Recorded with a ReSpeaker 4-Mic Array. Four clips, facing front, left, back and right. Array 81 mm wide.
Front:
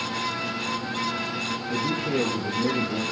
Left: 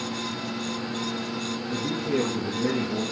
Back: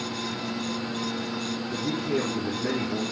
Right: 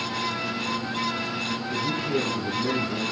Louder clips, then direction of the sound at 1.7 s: Even, front 2 dB; 25° left.